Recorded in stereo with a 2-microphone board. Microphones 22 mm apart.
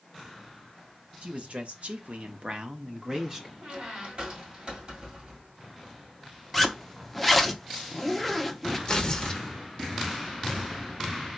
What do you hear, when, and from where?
1.2 s a man speaking: 60° right (ahead or behind), 0.8 m; by 3.5 s 20° right (ahead or behind), 1.1 m
3.6 s a squeak: 40° right (ahead or behind), 1.9 m
6.5 s a zipper: centre (ahead or behind), 0.6 m
8.9 s tearing paper: 30° left (ahead or behind), 0.8 m